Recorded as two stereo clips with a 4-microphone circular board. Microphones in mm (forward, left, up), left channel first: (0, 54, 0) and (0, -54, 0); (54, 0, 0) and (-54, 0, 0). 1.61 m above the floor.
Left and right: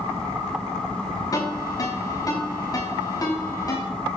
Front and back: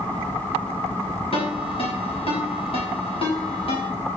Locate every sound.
1.3 s a ringtone: 35° left, 6.5 m